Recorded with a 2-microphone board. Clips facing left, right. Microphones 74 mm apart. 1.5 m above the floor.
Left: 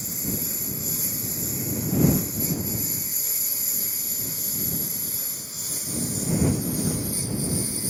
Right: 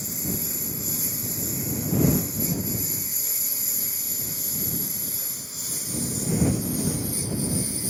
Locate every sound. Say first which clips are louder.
0.0 s a lawn mower: even; 5° right (ahead or behind); by 7.9 s 10° left (ahead or behind)